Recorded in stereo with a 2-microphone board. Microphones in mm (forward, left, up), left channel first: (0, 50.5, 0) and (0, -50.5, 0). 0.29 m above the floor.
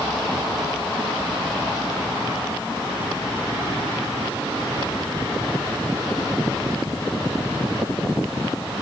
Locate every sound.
Only background noise.